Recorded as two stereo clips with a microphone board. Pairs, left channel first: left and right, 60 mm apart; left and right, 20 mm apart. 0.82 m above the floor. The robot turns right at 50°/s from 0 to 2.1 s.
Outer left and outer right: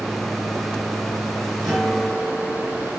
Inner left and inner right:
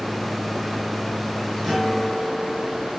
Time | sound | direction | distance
1.6 | a guitar | 5° right (ahead or behind) | 1.3 m